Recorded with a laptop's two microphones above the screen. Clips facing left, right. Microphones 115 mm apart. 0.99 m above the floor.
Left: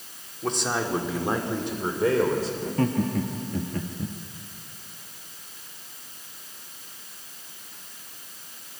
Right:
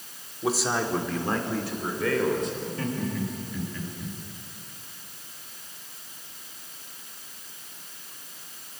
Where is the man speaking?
5° right (ahead or behind), 2 m; by 2.5 s 35° left (ahead or behind), 3.5 m.